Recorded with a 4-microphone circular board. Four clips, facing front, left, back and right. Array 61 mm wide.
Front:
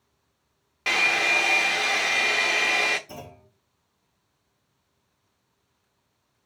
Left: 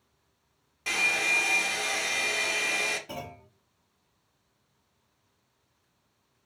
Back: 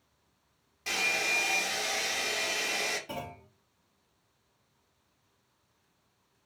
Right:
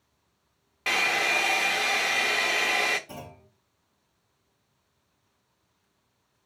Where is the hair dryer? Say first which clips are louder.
Right 2 dB, front 8 dB; 35° right, 0.5 m.